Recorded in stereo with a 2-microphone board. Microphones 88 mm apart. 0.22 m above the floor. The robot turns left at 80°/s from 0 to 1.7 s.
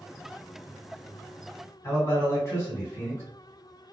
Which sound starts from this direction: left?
A man speaking, at 1.8 s.